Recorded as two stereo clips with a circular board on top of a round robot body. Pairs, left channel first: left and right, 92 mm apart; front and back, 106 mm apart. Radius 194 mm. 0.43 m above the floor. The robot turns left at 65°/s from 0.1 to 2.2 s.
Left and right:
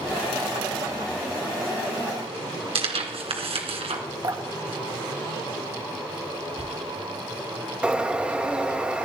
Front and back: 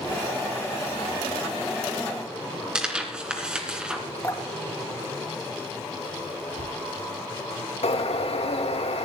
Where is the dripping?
55° right, 2.5 m.